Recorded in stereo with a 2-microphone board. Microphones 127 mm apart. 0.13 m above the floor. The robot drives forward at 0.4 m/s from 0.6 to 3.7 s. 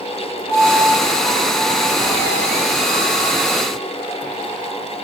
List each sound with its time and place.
0.5 s a piano: 30° left (ahead or behind), 2 m; by 3.4 s 40° left (ahead or behind), 1.5 m